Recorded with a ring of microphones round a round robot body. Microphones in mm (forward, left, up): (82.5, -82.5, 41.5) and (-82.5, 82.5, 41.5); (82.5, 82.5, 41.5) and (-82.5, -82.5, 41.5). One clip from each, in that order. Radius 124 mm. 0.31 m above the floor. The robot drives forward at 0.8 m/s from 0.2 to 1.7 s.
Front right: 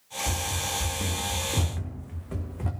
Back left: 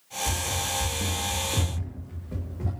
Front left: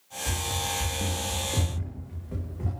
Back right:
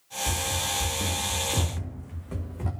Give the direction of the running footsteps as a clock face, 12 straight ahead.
3 o'clock.